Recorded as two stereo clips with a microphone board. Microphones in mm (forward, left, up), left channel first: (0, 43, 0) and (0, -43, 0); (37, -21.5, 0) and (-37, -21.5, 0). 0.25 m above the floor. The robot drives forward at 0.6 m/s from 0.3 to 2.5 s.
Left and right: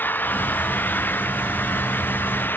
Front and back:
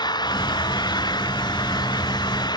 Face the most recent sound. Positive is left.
turn(degrees=20)